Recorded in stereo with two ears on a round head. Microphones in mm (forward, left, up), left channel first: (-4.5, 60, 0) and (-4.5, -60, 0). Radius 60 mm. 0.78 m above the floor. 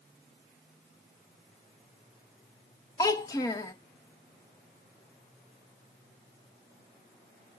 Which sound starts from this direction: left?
A child speaking, at 3.0 s.